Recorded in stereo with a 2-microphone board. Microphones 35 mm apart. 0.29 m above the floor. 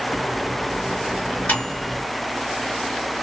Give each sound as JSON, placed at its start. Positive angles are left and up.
{"t": 0.1, "sound": "a microwave", "side_deg": 45, "distance_m": 2.5}